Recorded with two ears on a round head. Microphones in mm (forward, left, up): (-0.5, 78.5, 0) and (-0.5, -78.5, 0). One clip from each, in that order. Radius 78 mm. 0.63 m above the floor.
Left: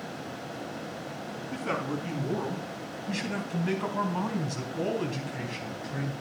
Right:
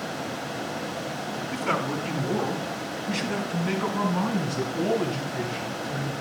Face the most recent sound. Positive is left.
turn(degrees=40)  # may be behind; listen again after turning